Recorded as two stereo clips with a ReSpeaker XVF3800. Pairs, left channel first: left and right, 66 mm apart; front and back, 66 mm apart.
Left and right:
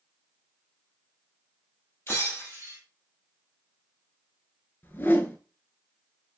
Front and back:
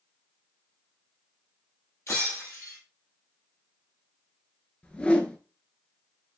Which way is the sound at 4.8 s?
60° left.